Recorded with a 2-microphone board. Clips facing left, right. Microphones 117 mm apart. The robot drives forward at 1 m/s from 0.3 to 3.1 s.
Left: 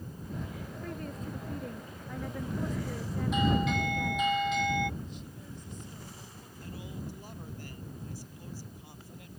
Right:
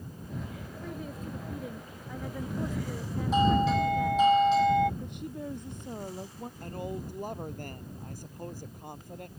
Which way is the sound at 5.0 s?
60° right (ahead or behind).